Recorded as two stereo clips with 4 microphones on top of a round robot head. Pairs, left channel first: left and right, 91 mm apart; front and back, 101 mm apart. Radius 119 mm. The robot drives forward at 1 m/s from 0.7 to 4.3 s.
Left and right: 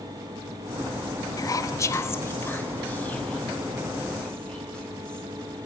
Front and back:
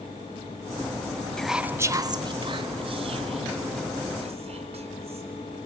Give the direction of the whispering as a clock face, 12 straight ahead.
9 o'clock.